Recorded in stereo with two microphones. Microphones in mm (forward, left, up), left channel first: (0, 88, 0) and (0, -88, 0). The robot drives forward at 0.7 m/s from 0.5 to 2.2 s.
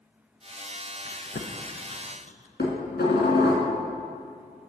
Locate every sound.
1.1 s chewing: 60° left (ahead or behind), 0.6 m; by 2.5 s 45° left (ahead or behind), 0.8 m
2.6 s dishes clattering: 70° left (ahead or behind), 1.5 m